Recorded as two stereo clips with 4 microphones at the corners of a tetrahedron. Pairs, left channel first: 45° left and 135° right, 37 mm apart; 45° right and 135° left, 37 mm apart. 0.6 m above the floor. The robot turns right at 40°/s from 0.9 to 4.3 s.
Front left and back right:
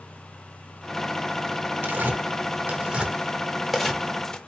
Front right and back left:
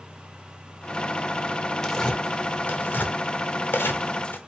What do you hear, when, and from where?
1.8 s tearing paper: 125° right, 0.6 m; by 4.4 s 25° right, 0.6 m